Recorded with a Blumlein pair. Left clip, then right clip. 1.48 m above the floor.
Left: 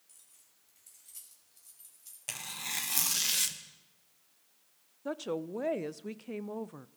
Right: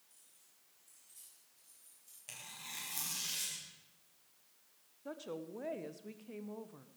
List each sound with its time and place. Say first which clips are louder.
0.1 s keys jangling: left 6 dB; 50° left, 6 m
2.3 s tearing paper: left 10 dB; 30° left, 1.5 m
5.0 s a woman speaking: left 9 dB; 25° left, 0.7 m